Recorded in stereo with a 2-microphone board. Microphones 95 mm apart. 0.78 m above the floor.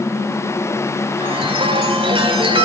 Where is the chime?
75° right (ahead or behind), 3.5 m.